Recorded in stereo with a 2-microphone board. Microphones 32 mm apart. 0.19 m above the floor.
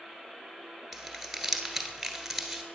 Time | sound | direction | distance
0.9 | crumpling | centre (ahead or behind) | 1.2 m